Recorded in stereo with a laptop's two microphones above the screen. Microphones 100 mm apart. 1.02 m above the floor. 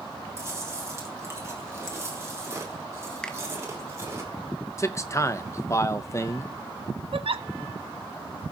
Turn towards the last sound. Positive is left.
turn(degrees=-65)  # may be behind; listen again after turning